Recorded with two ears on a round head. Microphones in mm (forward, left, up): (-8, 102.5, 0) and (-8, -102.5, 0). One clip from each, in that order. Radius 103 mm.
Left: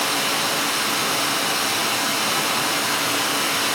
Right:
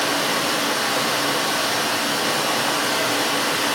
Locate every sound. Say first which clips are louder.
0.0 s running water: right 1 dB; 50° left (ahead or behind), 2.0 m